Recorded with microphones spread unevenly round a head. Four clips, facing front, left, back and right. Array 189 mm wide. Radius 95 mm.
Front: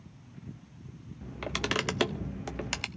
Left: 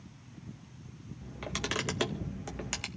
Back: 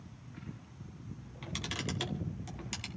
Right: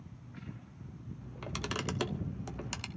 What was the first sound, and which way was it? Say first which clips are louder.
A camera shutter: left 3 dB, front 10 dB; 20° left.